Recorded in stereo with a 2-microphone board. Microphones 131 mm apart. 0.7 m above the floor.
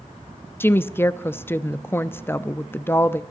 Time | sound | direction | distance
0.6 | a woman speaking | 15° left (ahead or behind) | 0.5 m